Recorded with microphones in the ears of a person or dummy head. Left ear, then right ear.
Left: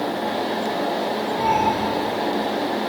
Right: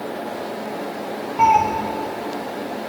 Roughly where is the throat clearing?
No throat clearing in this recording.